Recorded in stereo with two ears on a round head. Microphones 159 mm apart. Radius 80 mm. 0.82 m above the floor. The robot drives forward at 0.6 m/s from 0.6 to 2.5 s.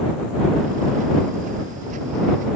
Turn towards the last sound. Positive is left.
No sound to turn to.